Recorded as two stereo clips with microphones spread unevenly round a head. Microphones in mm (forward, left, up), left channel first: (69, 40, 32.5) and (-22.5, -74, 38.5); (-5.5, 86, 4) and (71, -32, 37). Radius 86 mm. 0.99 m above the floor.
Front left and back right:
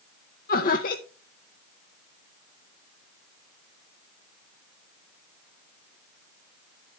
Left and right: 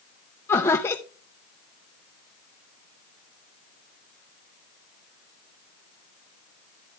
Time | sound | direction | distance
0.5 | laughter | 60° left | 0.7 m